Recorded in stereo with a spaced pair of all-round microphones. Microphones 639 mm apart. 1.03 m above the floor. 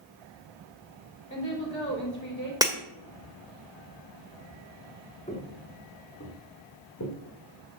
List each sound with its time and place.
1.3 s a woman speaking: 25° left (ahead or behind), 3.5 m
2.6 s breaking glass: 5° right (ahead or behind), 1.4 m
5.3 s footsteps: 10° left (ahead or behind), 2.5 m; by 7.2 s 30° left (ahead or behind), 3 m